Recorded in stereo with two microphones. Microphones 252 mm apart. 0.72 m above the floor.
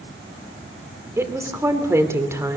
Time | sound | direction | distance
1.2 | a woman speaking | 10° right (ahead or behind) | 2.5 m